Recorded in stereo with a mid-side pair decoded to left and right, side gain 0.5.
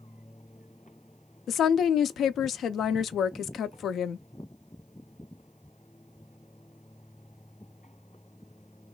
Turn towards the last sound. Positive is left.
turn(degrees=55)